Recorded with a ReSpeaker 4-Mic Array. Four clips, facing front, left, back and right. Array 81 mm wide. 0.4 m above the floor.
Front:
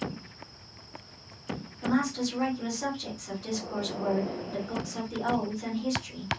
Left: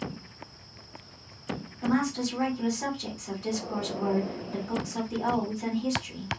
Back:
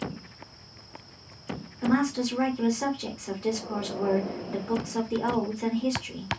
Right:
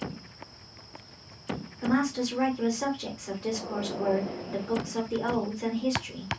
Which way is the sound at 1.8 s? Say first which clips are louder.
Right 1 dB, back 3 dB; 145° right.